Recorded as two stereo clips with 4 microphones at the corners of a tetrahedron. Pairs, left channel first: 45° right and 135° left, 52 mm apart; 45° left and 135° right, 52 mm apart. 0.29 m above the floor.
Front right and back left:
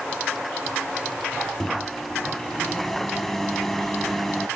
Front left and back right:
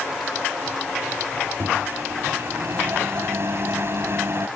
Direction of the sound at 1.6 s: 130° right.